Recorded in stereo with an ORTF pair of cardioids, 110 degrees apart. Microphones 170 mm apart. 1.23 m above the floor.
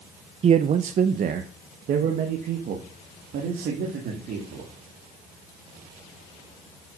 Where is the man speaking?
40° right, 0.7 m; by 4.7 s 65° right, 3 m.